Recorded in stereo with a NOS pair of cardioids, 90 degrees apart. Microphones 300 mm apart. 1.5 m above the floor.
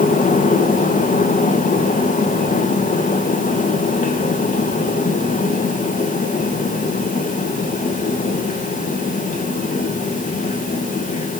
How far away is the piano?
No piano in this recording.